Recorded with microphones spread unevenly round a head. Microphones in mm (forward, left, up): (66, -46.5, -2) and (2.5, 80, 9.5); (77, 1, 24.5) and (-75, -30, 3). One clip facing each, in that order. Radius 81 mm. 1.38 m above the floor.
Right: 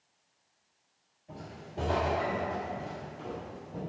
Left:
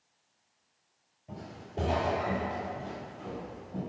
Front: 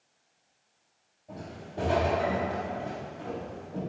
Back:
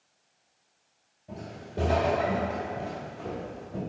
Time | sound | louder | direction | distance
1.3 | footsteps | left 2 dB, back 2 dB | 130° left | 1.5 m